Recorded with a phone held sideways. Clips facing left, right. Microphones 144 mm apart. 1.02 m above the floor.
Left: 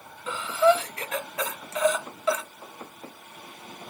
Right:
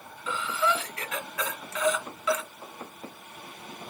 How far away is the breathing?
About 0.8 m.